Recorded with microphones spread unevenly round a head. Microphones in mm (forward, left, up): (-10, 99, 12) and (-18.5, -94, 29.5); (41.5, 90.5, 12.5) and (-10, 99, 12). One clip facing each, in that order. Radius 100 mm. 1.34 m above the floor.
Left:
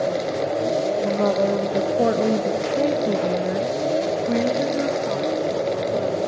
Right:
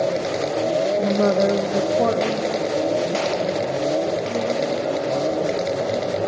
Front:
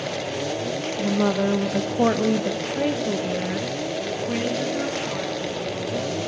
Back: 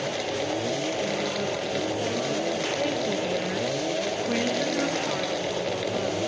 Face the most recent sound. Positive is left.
turn(degrees=100)